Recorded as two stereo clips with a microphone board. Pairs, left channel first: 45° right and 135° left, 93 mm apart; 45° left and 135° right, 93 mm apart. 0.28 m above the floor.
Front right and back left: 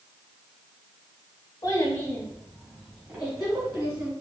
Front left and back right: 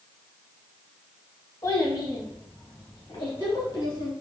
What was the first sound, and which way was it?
A child speaking, straight ahead.